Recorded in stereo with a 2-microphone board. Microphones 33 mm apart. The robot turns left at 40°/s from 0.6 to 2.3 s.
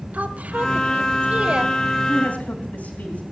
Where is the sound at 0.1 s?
95° right, 1.3 m; by 1.8 s 145° right, 1.3 m.